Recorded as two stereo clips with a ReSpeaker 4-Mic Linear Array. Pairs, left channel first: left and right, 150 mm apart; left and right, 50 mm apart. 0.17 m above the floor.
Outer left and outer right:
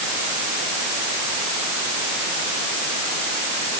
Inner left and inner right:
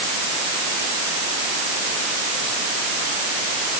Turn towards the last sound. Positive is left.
No sound to turn to.